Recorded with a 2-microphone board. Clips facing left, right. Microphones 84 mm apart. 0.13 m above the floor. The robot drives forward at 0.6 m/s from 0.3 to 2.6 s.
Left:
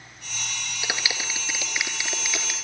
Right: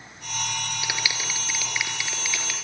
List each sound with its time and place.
0.8 s a clap: 25° left (ahead or behind), 2.5 m; by 2.5 s 20° left (ahead or behind), 3 m